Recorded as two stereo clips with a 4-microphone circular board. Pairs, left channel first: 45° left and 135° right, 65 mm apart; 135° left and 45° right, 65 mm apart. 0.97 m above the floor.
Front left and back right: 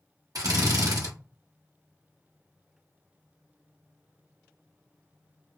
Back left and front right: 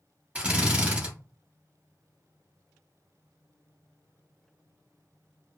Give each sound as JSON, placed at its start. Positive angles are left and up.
{"t": 0.3, "sound": "a drill", "azimuth_deg": -115, "distance_m": 0.9}